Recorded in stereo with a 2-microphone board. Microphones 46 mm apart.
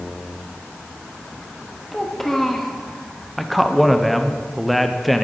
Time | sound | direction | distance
1.9 | a child speaking | 5° left (ahead or behind) | 1.2 m
3.4 | a man speaking | centre (ahead or behind) | 0.7 m